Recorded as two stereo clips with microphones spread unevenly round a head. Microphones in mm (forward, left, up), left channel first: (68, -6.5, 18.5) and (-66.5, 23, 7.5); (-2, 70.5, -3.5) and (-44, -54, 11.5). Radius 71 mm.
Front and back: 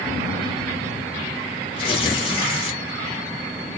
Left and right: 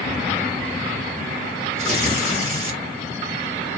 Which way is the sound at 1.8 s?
65° right.